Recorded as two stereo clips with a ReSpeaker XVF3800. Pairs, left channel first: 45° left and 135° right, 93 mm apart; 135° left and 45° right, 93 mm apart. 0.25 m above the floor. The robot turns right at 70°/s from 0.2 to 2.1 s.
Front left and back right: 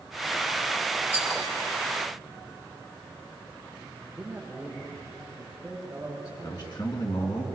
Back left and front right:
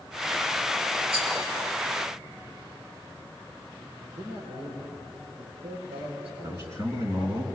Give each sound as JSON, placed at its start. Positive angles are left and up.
{"t": 1.1, "sound": "a rattle", "azimuth_deg": -60, "distance_m": 5.0}
{"t": 4.0, "sound": "a man speaking", "azimuth_deg": -55, "distance_m": 8.5}
{"t": 6.4, "sound": "a man speaking", "azimuth_deg": 10, "distance_m": 3.5}